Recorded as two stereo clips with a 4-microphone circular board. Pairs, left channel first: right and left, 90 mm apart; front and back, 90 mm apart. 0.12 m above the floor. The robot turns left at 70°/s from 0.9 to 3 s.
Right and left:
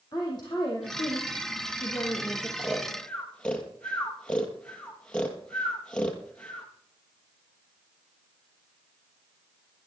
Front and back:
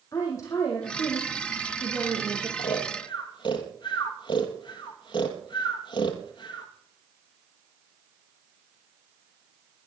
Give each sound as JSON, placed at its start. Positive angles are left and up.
{"t": 0.1, "sound": "a woman speaking", "azimuth_deg": -55, "distance_m": 4.0}
{"t": 2.6, "sound": "snoring", "azimuth_deg": 15, "distance_m": 2.5}